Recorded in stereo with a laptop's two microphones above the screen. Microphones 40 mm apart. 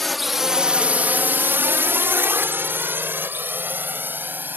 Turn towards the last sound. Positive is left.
turn(degrees=-55)  # may be behind; listen again after turning